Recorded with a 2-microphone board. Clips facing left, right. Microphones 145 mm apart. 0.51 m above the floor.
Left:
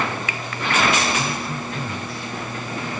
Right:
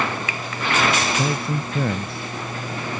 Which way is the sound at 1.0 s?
60° right (ahead or behind).